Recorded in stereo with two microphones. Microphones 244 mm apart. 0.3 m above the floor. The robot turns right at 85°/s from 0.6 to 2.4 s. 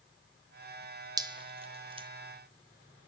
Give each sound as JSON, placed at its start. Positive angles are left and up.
{"t": 1.2, "sound": "dripping", "side_deg": -15, "distance_m": 1.1}